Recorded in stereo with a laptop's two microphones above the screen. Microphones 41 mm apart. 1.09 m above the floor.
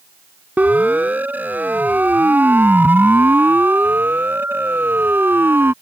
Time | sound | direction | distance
0.6 | a siren | 45° right (ahead or behind) | ?